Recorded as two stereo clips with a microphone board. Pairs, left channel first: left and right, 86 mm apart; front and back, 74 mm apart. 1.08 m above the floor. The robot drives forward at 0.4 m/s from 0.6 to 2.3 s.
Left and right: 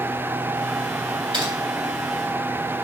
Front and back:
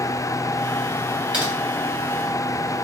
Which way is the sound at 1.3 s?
110° right.